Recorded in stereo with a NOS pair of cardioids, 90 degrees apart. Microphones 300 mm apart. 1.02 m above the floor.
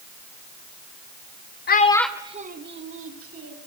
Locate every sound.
1.7 s a child speaking: 35° left, 0.9 m; by 3.5 s 55° right, 2.5 m